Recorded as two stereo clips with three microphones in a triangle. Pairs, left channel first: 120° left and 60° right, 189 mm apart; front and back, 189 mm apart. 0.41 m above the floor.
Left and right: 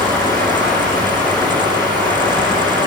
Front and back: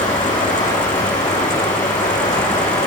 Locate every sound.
0.0 s running water: 50° left, 9.5 m